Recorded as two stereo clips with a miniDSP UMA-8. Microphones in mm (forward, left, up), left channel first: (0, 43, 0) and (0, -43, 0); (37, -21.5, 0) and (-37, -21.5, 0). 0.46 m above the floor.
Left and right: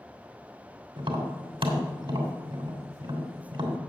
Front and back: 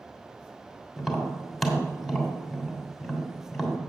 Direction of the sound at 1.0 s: 90° right.